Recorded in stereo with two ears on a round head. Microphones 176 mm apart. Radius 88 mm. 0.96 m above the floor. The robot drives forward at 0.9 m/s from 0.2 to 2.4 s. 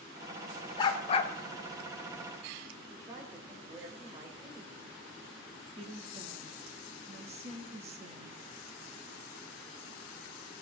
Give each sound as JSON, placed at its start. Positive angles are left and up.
{"t": 0.8, "sound": "a dog barking", "side_deg": 25, "distance_m": 1.3}
{"t": 2.9, "sound": "a woman speaking", "side_deg": -20, "distance_m": 3.5}
{"t": 5.8, "sound": "a woman speaking", "side_deg": -35, "distance_m": 1.8}